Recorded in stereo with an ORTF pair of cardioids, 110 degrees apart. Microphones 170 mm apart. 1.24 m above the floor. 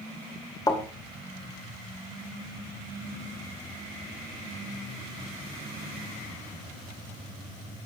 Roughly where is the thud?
Ahead left.